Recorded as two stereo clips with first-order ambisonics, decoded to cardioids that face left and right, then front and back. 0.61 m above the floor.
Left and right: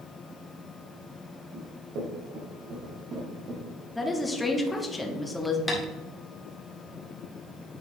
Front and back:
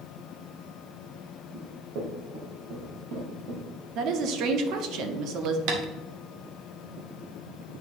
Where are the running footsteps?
130° right, 2.5 m; by 3.6 s 145° right, 3.5 m.